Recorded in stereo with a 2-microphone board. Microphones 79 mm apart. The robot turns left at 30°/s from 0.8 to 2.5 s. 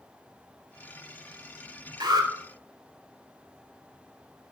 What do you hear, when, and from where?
2.0 s an alarm: 60° right (ahead or behind), 3 m; by 2.3 s 55° right (ahead or behind), 3 m